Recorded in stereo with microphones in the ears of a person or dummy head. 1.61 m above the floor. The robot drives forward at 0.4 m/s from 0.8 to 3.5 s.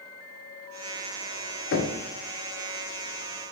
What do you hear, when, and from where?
1.7 s knocking: 65° left (ahead or behind), 0.5 m; by 1.9 s 60° left (ahead or behind), 0.5 m